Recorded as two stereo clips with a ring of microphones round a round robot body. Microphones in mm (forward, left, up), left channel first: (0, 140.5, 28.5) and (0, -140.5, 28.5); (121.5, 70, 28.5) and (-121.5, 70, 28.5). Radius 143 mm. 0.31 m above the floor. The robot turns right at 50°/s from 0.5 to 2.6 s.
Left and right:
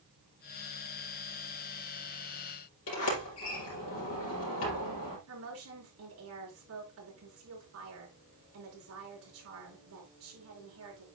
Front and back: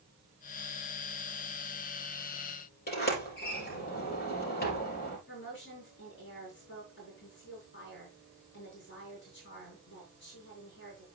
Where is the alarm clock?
I don't hear an alarm clock.